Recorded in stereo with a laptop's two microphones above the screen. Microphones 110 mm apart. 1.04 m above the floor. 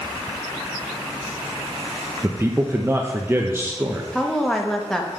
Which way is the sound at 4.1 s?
5° left (ahead or behind).